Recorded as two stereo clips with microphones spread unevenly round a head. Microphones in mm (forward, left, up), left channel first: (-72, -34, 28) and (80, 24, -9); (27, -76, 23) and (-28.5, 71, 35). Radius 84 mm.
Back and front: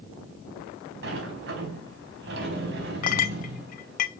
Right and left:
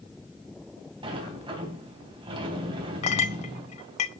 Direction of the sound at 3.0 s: 120° right.